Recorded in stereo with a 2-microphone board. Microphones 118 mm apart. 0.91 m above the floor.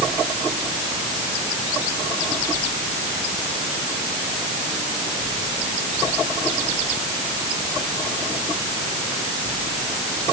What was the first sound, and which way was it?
Only background noise.